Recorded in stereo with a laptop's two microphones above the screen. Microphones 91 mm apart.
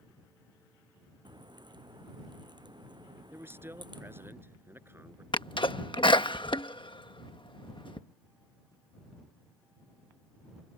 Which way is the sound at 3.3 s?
25° right (ahead or behind).